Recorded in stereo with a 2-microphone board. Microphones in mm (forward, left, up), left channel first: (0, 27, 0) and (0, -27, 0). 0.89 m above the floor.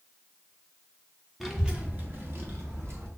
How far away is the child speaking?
About 0.6 m.